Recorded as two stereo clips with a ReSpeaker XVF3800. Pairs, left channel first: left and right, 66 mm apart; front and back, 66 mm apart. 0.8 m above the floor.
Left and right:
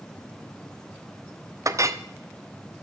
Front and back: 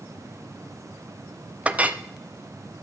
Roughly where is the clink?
Behind right.